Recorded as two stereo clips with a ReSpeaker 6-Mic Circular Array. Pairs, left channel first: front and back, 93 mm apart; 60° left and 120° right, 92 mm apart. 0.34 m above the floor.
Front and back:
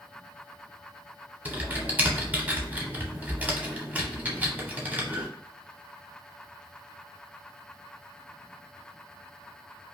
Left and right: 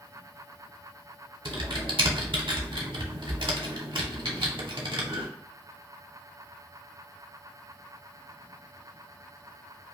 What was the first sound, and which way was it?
Typing on a keyboard, 110° right.